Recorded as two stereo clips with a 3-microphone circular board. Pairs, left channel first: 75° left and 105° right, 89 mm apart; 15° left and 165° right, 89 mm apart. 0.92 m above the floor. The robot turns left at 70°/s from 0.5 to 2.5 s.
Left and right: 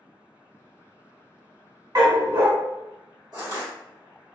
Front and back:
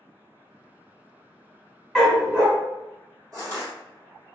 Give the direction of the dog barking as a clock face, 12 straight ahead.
2 o'clock.